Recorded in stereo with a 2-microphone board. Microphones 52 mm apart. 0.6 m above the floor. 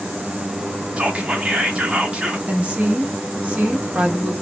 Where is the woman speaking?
25° right (ahead or behind), 0.9 m.